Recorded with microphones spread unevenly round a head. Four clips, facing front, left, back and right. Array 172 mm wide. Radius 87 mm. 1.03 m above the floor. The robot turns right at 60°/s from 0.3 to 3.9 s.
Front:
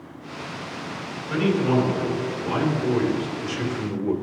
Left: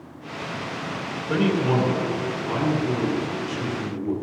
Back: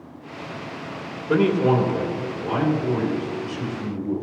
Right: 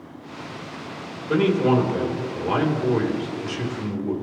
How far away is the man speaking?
About 3 m.